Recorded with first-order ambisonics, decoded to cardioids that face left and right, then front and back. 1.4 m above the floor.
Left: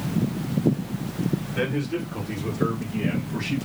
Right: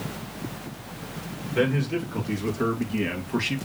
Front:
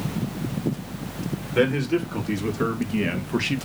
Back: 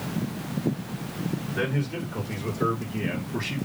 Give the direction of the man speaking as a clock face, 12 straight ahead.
12 o'clock.